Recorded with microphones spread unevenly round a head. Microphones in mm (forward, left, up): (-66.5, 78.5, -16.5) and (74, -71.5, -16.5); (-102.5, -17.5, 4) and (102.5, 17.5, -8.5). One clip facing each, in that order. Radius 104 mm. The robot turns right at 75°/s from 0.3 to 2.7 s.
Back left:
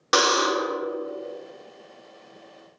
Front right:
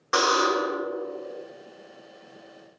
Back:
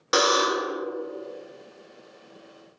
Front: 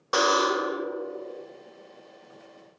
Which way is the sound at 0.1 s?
140° left.